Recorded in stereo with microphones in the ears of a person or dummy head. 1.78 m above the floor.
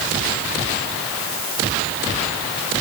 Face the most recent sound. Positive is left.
No sound to turn to.